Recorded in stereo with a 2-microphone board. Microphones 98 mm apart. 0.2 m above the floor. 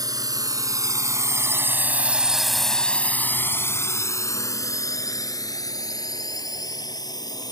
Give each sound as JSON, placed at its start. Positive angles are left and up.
{"t": 0.0, "sound": "a drone", "side_deg": -40}